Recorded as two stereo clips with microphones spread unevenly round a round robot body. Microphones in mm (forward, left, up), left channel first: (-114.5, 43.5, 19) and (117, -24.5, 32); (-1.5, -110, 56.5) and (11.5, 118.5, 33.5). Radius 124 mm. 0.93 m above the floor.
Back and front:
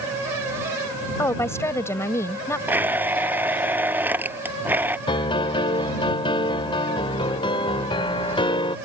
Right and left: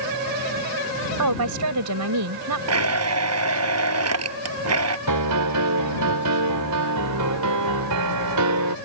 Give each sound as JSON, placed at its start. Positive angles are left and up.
{"t": 1.2, "sound": "a woman speaking", "azimuth_deg": 85}
{"t": 2.7, "sound": "a blender", "azimuth_deg": 65}
{"t": 5.1, "sound": "a piano", "azimuth_deg": 90}